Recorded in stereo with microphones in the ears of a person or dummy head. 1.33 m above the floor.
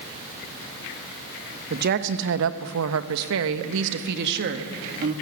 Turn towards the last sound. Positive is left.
turn(degrees=-50)  # may be behind; listen again after turning